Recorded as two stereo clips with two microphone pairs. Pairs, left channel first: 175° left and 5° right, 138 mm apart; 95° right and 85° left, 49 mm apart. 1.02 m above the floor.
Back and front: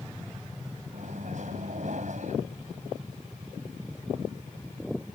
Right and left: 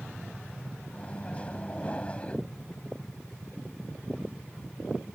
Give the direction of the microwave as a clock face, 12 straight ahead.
1 o'clock.